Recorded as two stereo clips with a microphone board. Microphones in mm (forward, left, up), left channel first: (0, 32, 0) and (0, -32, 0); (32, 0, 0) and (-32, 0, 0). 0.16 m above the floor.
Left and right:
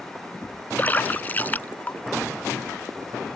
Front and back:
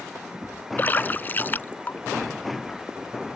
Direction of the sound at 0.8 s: 40° left.